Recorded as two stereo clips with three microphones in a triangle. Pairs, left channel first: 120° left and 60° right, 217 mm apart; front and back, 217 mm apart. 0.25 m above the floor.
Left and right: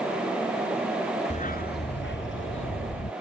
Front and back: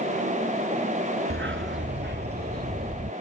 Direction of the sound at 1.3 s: 175° left.